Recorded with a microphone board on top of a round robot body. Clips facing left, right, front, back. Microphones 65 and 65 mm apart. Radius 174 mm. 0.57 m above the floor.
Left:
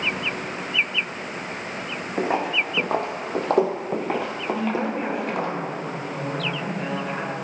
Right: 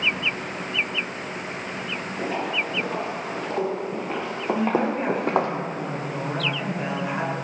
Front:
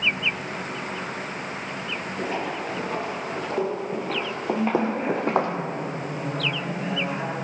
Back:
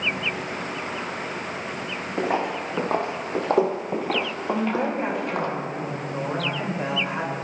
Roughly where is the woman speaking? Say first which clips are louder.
Right 3 dB, front 1 dB; behind.